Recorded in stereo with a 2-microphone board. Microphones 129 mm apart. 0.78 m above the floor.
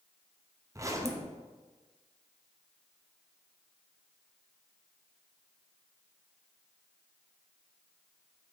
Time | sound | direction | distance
0.8 | a zipper | 25° right (ahead or behind) | 0.6 m